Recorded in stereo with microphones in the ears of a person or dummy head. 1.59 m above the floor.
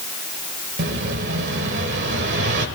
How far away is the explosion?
About 1.3 m.